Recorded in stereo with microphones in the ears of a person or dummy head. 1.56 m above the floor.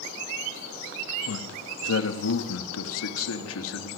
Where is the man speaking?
85° left, 2 m.